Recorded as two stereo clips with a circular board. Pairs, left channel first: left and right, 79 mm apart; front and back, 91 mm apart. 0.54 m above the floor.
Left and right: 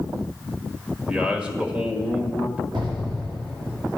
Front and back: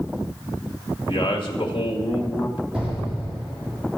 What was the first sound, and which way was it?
A man speaking, 20° right.